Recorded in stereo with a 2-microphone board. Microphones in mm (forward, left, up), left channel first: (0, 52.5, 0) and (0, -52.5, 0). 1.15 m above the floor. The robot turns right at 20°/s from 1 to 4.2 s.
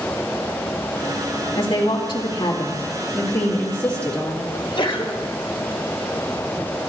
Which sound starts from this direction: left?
A sneeze, at 4.5 s.